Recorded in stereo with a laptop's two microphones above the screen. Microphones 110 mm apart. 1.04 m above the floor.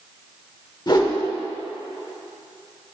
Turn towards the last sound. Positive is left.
turn(degrees=40)  # may be behind; listen again after turning